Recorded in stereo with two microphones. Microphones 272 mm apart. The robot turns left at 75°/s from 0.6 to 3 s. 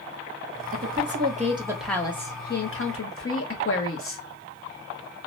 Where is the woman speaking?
95° right, 0.8 m; by 4.2 s 95° left, 0.8 m.